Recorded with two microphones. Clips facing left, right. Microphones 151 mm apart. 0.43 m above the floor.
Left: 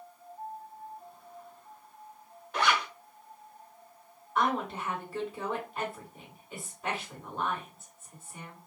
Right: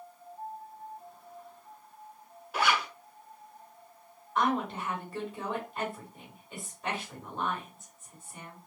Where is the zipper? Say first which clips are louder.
Even; 5° right (ahead or behind), 0.7 m.